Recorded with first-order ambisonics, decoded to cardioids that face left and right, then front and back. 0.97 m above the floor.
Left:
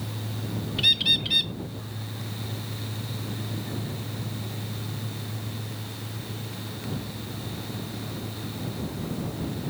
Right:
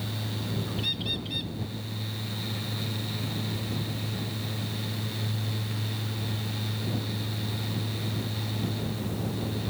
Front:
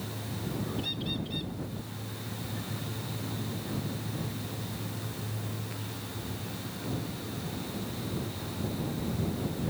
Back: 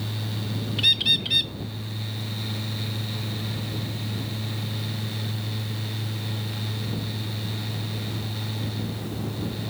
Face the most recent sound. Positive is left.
turn(degrees=145)